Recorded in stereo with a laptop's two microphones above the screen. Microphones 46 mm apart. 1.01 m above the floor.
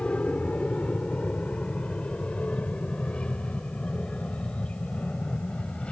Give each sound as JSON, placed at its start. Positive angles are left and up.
{"t": 0.0, "sound": "an aircraft", "side_deg": 25}